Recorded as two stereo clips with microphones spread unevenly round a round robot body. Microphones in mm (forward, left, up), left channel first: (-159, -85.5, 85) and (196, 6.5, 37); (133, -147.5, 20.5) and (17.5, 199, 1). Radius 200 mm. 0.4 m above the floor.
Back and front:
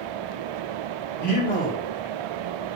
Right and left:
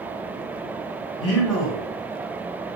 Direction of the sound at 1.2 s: 100° right.